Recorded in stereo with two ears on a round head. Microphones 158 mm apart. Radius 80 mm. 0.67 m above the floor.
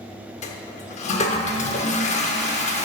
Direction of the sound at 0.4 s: 40° left (ahead or behind).